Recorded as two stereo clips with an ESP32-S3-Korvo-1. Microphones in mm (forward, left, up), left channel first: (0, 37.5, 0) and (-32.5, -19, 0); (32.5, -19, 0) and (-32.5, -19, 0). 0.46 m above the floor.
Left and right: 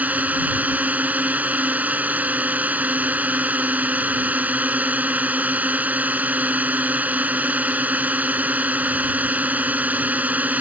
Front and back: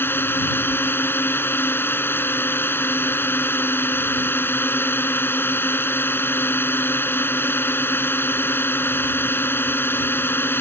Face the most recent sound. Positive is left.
turn(degrees=-55)